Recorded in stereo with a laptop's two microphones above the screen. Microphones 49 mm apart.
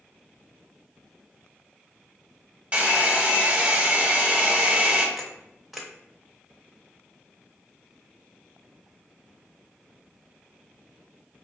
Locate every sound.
2.7 s a hair dryer: 25° right (ahead or behind), 1.1 m
5.2 s a camera shutter: 5° right (ahead or behind), 0.7 m